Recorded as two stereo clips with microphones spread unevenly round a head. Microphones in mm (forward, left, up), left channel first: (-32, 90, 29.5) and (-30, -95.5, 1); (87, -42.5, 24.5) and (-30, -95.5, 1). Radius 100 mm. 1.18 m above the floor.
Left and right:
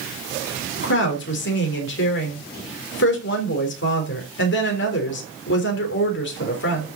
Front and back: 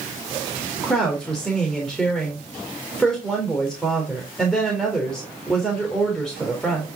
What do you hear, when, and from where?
0.8 s a woman speaking: 110° left, 3.5 m